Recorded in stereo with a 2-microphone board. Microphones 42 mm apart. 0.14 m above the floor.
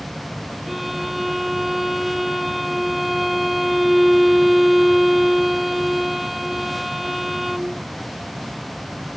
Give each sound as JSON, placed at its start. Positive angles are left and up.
{"t": 0.7, "sound": "a violin", "side_deg": -5}